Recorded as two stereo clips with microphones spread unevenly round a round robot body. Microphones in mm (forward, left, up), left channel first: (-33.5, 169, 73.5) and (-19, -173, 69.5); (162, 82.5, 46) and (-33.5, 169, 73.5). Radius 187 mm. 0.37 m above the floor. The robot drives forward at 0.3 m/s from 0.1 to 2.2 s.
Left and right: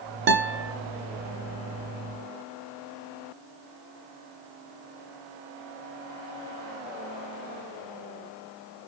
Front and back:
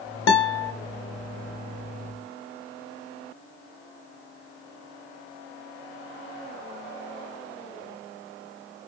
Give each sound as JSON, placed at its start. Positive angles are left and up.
{"t": 0.3, "sound": "a guitar", "azimuth_deg": -30, "distance_m": 1.4}